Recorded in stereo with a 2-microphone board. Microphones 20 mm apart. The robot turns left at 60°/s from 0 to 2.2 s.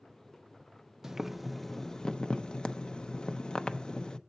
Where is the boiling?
155° right, 0.5 m; by 4.2 s 135° left, 0.5 m.